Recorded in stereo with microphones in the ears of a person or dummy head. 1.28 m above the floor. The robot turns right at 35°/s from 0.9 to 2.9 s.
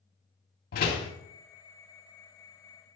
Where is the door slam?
55° left (ahead or behind), 2.5 m; by 1.1 s 60° left (ahead or behind), 2.5 m.